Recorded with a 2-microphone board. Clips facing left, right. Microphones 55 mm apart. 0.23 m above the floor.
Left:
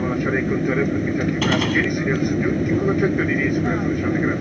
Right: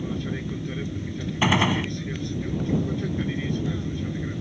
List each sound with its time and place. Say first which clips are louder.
0.0 s an aircraft: left 10 dB; 55° left (ahead or behind)
1.4 s a gunshot: even; 20° right (ahead or behind)